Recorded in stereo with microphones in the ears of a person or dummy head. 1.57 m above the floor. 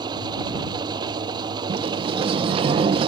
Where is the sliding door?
30° right (ahead or behind).